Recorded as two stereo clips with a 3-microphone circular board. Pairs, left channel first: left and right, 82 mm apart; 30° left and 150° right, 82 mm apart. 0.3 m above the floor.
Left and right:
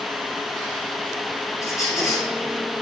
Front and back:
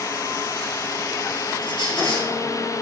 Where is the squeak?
40° left, 3 m.